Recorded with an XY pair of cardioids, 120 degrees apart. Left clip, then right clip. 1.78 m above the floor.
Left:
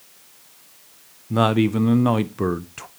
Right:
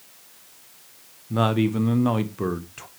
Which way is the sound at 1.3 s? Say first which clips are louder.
Left 3 dB; 25° left.